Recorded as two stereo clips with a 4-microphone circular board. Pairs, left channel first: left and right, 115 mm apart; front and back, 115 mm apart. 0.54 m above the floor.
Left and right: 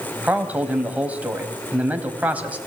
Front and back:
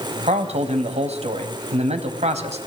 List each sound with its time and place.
0.2 s a man speaking: 165° right, 3 m